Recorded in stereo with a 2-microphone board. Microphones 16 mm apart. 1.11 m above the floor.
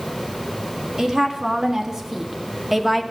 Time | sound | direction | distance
1.0 | a woman speaking | 35° right (ahead or behind) | 2.5 m